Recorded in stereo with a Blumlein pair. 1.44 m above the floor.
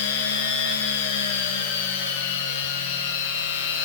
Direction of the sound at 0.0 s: 55° left.